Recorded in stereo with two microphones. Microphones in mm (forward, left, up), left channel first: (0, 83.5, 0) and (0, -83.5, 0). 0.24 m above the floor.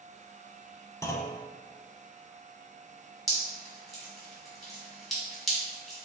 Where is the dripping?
Centre (ahead or behind), 1.7 m.